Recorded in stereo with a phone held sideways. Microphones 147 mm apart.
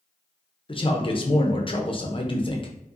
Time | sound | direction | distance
0.7 | a man speaking | 35° left (ahead or behind) | 0.7 m